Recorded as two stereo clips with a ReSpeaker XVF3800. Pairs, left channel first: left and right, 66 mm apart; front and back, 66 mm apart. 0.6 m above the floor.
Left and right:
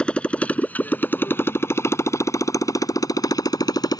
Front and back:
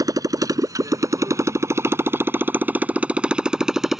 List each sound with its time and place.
0.0 s a motorcycle: 165° left; by 4.0 s 95° left